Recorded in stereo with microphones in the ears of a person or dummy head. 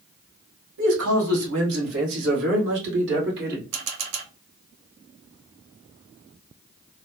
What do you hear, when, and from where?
0.8 s a man speaking: 65° right (ahead or behind), 1.3 m; by 3.6 s 55° right (ahead or behind), 1.9 m
3.7 s a camera shutter: 90° right, 1.0 m